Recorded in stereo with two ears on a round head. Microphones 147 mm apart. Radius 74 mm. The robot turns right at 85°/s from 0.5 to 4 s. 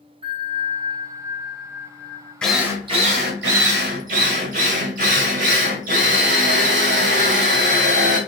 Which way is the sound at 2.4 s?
175° left.